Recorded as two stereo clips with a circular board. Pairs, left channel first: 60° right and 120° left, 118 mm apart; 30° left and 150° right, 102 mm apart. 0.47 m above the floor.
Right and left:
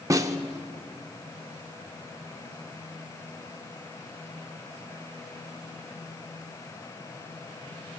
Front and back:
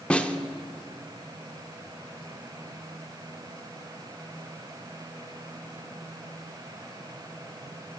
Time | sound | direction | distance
0.1 | a snare drum | 100° left | 0.5 m